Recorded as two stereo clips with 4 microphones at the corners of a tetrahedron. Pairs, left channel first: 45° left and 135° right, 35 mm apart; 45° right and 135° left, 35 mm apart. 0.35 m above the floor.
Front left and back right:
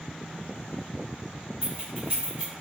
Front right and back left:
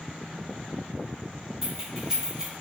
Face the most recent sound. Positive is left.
turn(degrees=-175)